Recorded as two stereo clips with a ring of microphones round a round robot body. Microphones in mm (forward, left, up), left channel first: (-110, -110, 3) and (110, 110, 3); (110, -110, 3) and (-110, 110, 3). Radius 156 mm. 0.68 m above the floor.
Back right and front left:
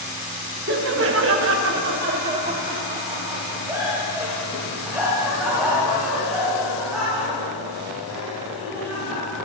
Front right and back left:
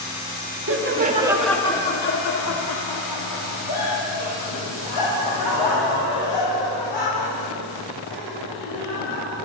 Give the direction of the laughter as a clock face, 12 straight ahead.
9 o'clock.